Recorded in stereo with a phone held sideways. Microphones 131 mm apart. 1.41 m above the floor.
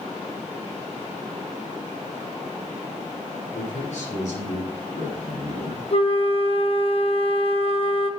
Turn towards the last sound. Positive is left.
turn(degrees=45)  # may be behind; listen again after turning